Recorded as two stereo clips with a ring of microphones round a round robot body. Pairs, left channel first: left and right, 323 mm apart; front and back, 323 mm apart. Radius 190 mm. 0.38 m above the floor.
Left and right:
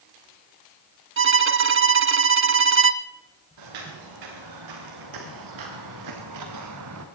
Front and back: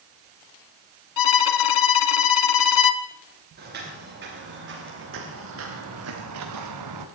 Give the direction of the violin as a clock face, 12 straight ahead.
1 o'clock.